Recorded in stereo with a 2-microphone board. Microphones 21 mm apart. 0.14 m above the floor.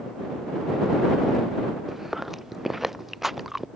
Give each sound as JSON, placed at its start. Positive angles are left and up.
{"t": 1.9, "sound": "chewing", "side_deg": -15}